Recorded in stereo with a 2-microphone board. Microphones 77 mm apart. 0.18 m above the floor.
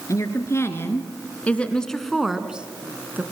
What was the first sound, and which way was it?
A woman speaking, 45° left (ahead or behind).